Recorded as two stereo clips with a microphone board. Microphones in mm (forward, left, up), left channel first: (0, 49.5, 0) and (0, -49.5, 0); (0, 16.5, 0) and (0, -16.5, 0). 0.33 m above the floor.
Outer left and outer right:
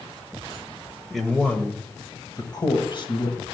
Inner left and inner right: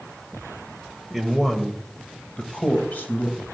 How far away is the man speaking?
About 1.4 m.